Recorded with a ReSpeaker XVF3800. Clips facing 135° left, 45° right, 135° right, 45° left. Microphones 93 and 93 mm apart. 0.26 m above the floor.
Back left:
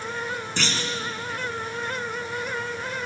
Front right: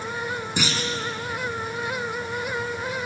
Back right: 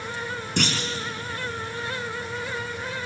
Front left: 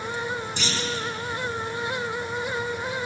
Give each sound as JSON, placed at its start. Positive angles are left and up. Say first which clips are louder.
{"t": 0.6, "sound": "a clunk", "louder": "front right 2 dB, back right 2 dB", "azimuth_deg": -125, "distance_m": 3.0}